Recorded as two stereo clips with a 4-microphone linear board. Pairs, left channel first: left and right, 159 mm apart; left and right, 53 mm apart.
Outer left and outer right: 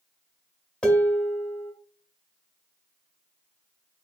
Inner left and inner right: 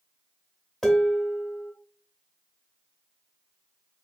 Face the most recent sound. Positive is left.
turn(degrees=5)  # may be behind; listen again after turning